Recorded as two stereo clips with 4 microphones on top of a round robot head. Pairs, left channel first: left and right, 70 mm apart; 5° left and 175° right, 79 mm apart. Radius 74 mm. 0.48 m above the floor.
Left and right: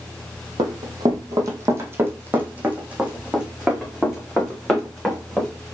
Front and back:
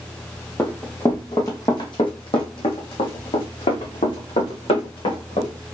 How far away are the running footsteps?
About 1.1 m.